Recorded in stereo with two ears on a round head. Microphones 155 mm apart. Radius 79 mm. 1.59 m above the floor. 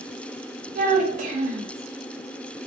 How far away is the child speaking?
About 0.6 m.